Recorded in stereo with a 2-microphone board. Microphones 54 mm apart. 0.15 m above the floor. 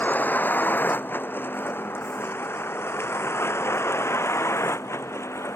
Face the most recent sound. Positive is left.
turn(degrees=60)  # may be behind; listen again after turning